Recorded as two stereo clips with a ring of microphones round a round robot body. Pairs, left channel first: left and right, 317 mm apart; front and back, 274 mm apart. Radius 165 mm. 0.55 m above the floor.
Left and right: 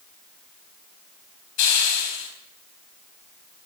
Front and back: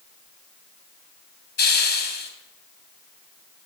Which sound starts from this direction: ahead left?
A hiss, at 1.6 s.